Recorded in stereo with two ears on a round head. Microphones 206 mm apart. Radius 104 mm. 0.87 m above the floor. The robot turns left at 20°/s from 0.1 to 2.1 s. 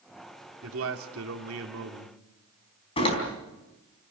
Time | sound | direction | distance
0.6 | a man speaking | 60° right (ahead or behind) | 2.5 m
3.0 | a door slam | 25° left (ahead or behind) | 4 m